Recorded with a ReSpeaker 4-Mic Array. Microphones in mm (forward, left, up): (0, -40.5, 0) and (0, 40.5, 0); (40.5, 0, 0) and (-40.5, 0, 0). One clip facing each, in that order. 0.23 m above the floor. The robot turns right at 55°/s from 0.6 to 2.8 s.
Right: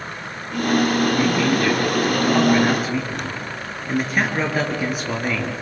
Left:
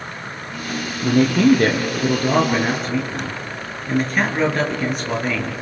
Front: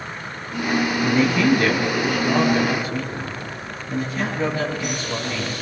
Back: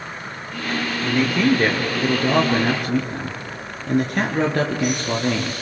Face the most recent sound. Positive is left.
turn(degrees=-175)